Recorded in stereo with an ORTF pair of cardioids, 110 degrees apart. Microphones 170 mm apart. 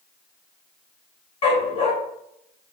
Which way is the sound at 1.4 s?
35° left.